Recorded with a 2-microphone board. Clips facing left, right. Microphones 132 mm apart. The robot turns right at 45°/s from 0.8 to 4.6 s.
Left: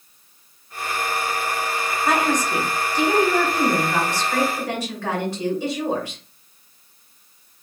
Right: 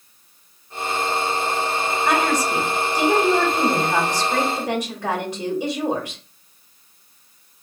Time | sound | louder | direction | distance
2.0 | a woman speaking | even | centre (ahead or behind) | 1.0 m